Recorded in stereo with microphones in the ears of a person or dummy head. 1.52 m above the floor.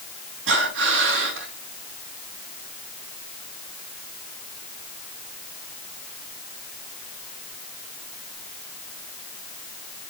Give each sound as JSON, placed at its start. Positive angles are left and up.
{"t": 0.5, "sound": "breathing", "side_deg": -80, "distance_m": 5.0}